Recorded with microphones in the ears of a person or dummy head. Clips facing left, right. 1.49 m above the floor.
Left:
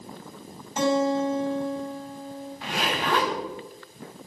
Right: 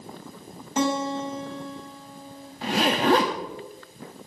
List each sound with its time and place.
0.8 s a guitar: 55° right (ahead or behind), 4 m
2.6 s a zipper: 35° right (ahead or behind), 1.8 m